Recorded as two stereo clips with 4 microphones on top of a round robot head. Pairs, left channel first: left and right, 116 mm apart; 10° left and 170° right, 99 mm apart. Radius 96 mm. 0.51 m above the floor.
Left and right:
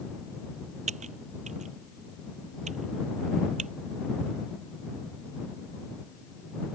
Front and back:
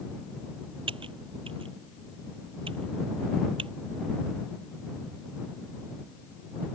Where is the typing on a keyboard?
125° right.